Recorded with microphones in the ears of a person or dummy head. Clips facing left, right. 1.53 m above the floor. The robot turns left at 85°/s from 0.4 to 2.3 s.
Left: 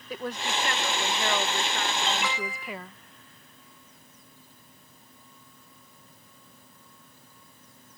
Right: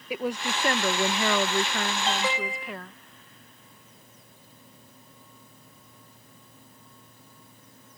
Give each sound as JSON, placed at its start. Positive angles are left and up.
{"t": 0.1, "sound": "a woman speaking", "azimuth_deg": -15}
{"t": 2.0, "sound": "an alarm", "side_deg": -50}